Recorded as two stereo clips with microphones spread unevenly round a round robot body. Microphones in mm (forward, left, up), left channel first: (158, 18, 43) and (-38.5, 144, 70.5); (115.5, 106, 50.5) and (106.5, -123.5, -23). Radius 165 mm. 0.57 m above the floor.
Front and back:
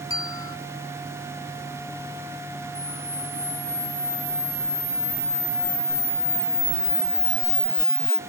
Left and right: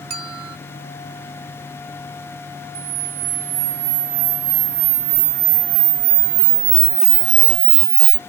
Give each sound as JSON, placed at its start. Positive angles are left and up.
{"t": 0.1, "sound": "a bell", "azimuth_deg": -115}
{"t": 2.8, "sound": "a camera shutter", "azimuth_deg": -120}